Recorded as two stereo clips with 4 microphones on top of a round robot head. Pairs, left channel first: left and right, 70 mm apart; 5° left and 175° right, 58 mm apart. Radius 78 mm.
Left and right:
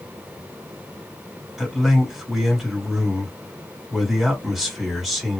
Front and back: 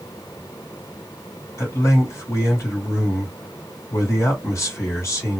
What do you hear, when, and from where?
1.6 s a man speaking: 5° right, 2.5 m